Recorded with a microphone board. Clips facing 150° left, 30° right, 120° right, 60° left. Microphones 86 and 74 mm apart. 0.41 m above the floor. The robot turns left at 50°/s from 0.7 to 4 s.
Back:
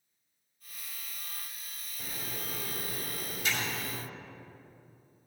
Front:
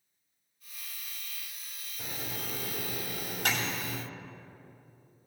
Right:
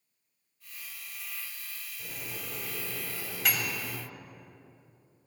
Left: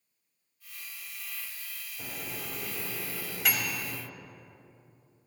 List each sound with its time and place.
2.0 s a microwave: 45° left, 2 m; by 4.0 s 55° right, 2 m